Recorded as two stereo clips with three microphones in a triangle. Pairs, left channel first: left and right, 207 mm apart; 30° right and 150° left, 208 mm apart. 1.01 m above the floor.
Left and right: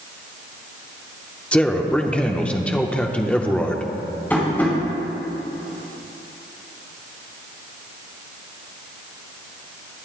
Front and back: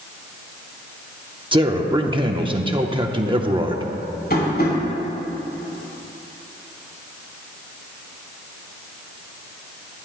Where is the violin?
No violin in this recording.